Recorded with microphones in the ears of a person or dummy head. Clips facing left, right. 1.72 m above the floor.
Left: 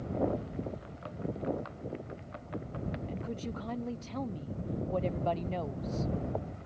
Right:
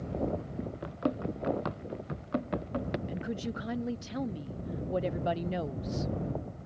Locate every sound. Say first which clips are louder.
0.8 s running footsteps: right 7 dB; 60° right (ahead or behind)
3.1 s a woman speaking: right 3 dB; 15° right (ahead or behind)